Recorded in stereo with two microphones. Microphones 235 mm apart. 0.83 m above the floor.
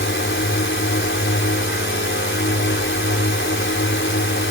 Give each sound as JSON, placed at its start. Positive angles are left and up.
{"t": 0.0, "sound": "a drone", "side_deg": 60}